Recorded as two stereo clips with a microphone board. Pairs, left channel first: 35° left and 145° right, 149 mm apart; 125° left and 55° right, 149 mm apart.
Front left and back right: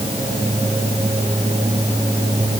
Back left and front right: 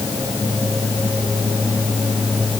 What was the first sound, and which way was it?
Only background noise.